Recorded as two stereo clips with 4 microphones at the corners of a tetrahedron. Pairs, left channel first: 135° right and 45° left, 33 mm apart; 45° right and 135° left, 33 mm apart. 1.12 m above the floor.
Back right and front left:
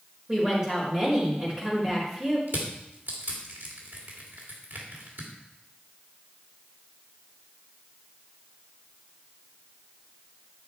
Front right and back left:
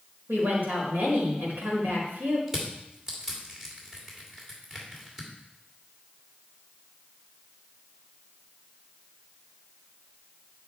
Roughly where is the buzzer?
I don't hear a buzzer.